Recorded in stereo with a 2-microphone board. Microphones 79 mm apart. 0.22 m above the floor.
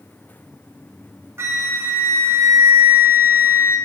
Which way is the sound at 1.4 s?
30° right (ahead or behind).